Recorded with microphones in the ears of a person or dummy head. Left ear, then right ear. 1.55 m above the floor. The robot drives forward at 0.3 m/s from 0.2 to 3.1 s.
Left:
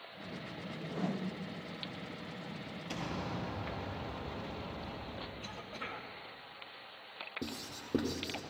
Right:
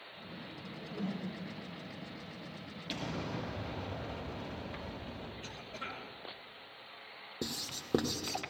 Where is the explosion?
5° left (ahead or behind), 5.5 m.